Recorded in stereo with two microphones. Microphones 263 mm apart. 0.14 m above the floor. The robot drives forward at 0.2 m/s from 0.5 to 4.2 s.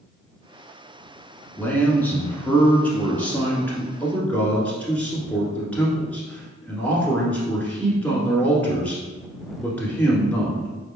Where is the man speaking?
5° left (ahead or behind), 1.1 m.